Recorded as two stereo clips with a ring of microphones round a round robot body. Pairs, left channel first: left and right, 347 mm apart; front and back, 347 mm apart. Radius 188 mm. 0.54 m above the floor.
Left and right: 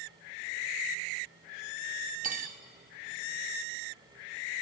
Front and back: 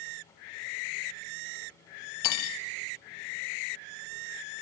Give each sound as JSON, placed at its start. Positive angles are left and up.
{"t": 2.2, "sound": "cutlery clinking", "azimuth_deg": -25, "distance_m": 0.6}